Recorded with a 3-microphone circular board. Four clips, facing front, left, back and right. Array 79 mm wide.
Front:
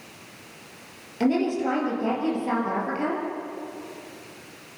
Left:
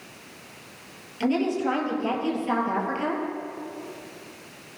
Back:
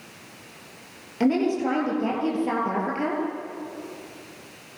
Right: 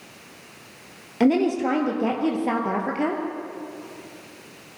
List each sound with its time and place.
1.2 s a woman speaking: 95° right, 7 m